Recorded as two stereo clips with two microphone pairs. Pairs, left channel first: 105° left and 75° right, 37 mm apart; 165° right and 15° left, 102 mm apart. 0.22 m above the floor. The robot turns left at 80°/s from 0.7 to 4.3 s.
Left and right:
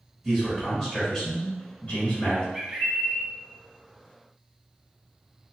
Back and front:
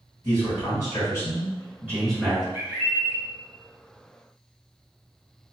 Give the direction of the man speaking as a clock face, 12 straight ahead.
4 o'clock.